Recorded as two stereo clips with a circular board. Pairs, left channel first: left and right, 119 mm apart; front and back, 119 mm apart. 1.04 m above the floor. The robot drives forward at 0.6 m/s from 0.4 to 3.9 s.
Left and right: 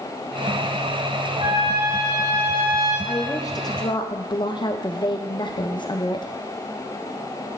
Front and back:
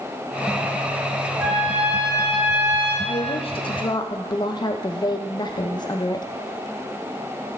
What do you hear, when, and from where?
1.4 s a trumpet: 100° right, 3 m; by 3.0 s 115° right, 3.5 m
3.0 s a woman speaking: 25° left, 1.0 m; by 6.3 s 45° left, 0.6 m